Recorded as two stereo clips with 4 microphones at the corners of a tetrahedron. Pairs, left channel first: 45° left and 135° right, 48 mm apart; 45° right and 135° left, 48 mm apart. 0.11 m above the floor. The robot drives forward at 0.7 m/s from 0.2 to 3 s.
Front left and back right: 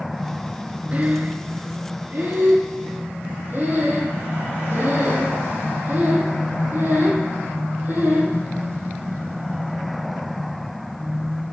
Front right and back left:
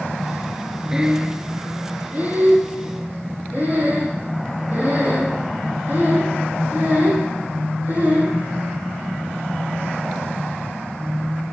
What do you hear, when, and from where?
0.9 s breathing: 160° right, 0.5 m; by 8.4 s 175° right, 1.8 m